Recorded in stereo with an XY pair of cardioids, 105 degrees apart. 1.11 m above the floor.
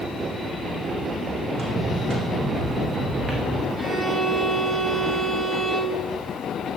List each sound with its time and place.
1.5 s footsteps: 45° right, 4 m; by 3.7 s 35° right, 5 m
3.8 s a violin: 25° right, 5 m